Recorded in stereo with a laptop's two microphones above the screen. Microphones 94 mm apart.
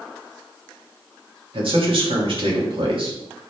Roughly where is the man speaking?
Right.